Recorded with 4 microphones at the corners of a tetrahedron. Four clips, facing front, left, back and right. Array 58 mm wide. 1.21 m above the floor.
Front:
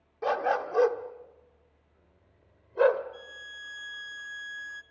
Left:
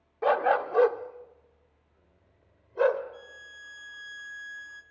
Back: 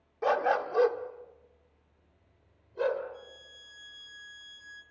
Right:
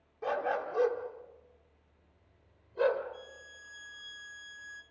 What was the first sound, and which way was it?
A dog barking, 95° left.